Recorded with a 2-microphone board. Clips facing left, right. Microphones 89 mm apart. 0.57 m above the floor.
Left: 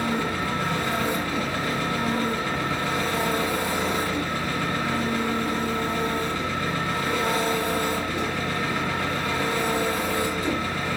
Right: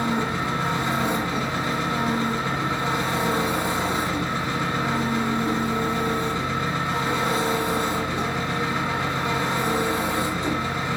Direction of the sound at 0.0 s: 25° right (ahead or behind).